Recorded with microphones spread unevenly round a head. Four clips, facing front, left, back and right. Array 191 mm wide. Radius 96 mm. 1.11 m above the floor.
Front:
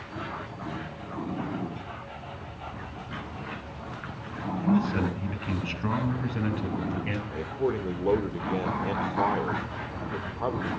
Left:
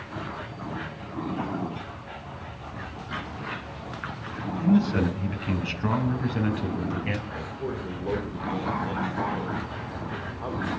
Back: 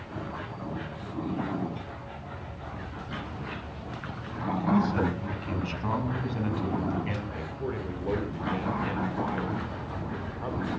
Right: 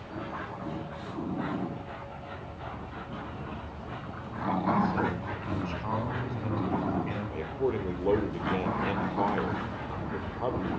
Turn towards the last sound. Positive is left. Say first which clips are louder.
# right 3 dB, front 5 dB
turn(degrees=-30)